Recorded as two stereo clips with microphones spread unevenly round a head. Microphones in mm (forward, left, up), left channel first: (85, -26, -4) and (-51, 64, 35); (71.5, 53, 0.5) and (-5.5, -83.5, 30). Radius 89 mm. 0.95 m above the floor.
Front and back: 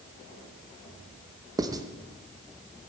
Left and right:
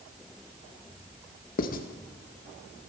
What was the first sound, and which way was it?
Writing, 75° left.